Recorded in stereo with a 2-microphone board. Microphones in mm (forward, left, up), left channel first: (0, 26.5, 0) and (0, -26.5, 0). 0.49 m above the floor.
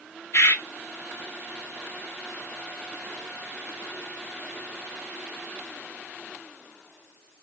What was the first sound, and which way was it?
A bird, 75° left (ahead or behind).